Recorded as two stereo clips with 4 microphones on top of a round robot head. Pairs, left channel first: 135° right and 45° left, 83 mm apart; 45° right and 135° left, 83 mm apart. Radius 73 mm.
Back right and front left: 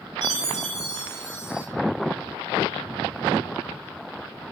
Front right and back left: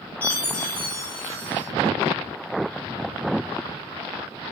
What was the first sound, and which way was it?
A chime, 30° left.